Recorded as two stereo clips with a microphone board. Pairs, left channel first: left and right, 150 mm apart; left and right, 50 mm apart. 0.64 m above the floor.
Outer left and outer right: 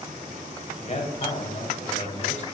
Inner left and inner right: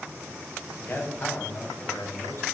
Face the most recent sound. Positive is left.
turn(degrees=50)  # may be behind; listen again after turning